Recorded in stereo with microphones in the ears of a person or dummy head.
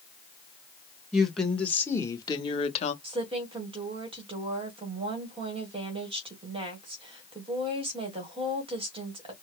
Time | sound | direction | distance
1.1 | a woman speaking | 5° right (ahead or behind) | 1.5 m
3.0 | a woman speaking | 20° right (ahead or behind) | 1.5 m